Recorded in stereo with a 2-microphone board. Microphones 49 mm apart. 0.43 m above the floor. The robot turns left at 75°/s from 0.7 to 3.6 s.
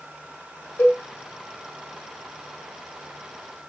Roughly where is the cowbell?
Left.